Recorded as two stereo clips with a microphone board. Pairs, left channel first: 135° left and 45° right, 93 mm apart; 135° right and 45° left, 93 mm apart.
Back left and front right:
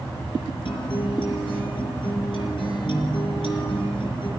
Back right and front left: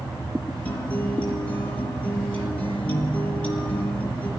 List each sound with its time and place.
0.7 s a guitar: 150° left, 8.5 m